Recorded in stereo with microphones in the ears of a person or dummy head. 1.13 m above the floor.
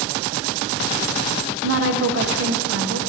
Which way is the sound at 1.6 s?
75° right (ahead or behind).